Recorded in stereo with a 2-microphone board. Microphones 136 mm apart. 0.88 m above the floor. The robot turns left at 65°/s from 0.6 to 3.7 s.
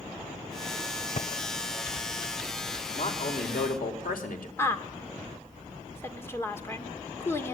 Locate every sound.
1.1 s typing on a keyboard: 55° left (ahead or behind), 1.4 m; by 2.9 s 50° right (ahead or behind), 1.4 m
3.0 s a man speaking: 135° left, 4 m; by 4.5 s 85° left, 4 m
4.6 s a woman speaking: 15° left (ahead or behind), 2.5 m